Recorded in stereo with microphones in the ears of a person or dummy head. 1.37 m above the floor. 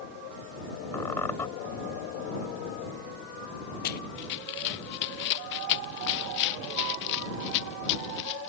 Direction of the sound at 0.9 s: 10° left (ahead or behind).